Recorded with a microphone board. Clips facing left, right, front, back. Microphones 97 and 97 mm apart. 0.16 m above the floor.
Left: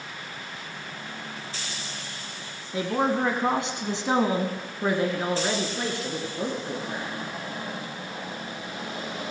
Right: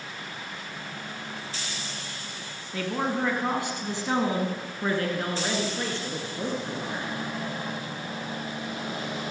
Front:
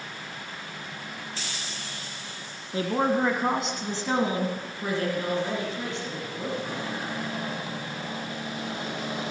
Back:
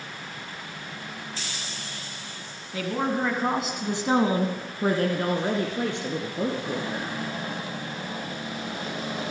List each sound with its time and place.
2.7 s a woman speaking: 30° left, 1.3 m; by 7.1 s 170° left, 3 m